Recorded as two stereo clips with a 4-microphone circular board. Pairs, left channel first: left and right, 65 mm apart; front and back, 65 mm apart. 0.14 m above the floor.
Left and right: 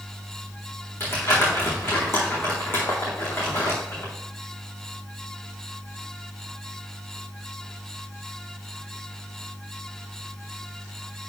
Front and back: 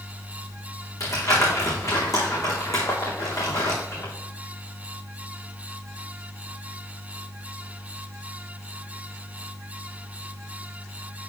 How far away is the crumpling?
About 4 m.